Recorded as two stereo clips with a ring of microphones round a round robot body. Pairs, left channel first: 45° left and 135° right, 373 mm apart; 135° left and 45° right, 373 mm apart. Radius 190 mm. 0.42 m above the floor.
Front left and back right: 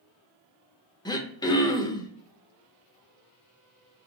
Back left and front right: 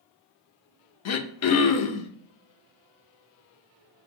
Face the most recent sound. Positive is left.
turn(degrees=120)